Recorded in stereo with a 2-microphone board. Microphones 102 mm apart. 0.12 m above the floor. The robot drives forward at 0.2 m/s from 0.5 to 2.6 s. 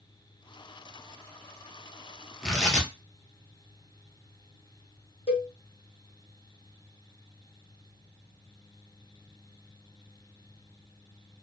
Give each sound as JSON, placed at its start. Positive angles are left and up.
{"t": 2.4, "sound": "tearing paper", "side_deg": 5, "distance_m": 0.9}
{"t": 5.3, "sound": "a cowbell", "side_deg": 75, "distance_m": 1.5}